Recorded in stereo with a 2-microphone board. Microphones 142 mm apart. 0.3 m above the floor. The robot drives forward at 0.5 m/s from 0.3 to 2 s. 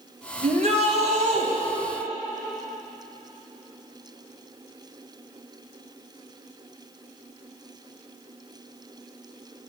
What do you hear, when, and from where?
0.4 s a shout: 50° right (ahead or behind), 2.0 m